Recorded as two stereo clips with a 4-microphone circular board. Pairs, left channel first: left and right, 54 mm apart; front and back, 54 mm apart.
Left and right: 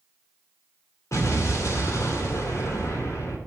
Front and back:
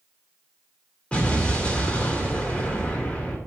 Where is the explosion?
70° left, 2.5 m.